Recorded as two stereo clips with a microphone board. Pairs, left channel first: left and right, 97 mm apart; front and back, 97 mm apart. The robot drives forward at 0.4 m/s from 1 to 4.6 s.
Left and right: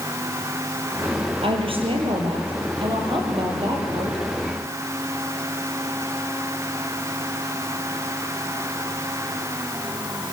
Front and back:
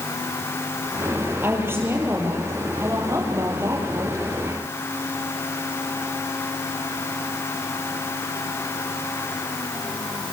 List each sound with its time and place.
1.4 s a woman speaking: 115° right, 5 m; by 4.2 s 125° right, 5.5 m